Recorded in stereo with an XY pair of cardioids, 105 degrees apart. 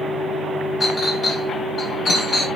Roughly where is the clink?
Ahead left.